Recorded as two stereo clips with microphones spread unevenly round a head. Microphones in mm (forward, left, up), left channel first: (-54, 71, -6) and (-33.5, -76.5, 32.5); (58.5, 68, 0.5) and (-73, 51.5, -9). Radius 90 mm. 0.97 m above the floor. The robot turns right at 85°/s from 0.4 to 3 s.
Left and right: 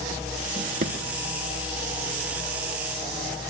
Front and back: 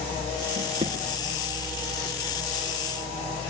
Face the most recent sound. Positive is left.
turn(degrees=75)